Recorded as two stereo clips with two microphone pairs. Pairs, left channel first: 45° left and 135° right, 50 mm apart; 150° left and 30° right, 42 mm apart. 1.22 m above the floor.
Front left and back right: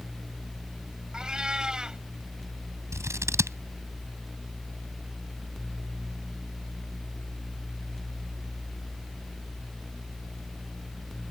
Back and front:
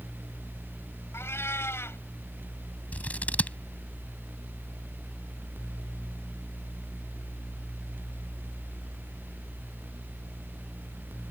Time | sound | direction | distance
1.1 | a cat meowing | 150° left | ?
2.9 | scissors | 160° right | ?